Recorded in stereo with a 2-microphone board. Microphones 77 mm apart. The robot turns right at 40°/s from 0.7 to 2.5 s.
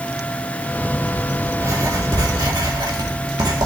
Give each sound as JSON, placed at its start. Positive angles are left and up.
{"t": 1.6, "sound": "writing", "side_deg": -35, "distance_m": 2.5}